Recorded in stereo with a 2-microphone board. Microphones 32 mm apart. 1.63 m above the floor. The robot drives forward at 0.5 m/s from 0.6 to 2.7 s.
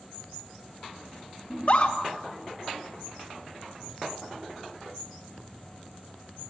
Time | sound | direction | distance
1.5 | a scream | 45° left (ahead or behind) | 2 m